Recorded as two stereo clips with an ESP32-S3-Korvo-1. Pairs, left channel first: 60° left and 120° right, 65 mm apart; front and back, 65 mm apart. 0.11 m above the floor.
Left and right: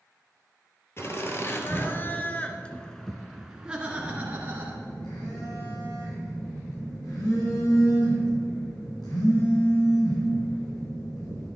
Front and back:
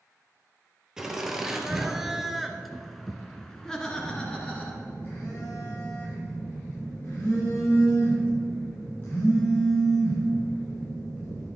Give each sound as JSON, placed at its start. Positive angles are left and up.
{"t": 1.0, "sound": "laughter", "azimuth_deg": 100, "distance_m": 2.5}
{"t": 3.9, "sound": "a phone buzzing", "azimuth_deg": 60, "distance_m": 5.0}